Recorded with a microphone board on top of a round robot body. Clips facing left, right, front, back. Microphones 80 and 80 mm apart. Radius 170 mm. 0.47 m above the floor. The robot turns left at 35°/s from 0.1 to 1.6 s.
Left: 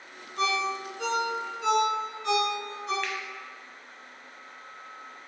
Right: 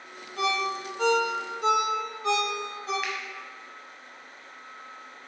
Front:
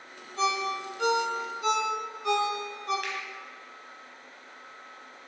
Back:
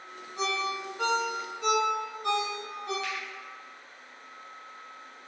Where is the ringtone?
100° right, 1.4 m; by 2.9 s 145° right, 1.4 m.